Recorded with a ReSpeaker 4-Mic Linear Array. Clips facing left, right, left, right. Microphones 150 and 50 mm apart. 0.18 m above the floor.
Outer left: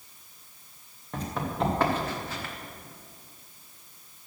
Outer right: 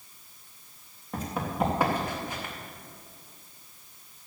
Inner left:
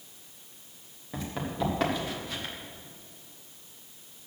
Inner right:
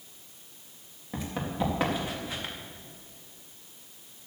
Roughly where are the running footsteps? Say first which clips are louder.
Even, inner right 1 dB; centre.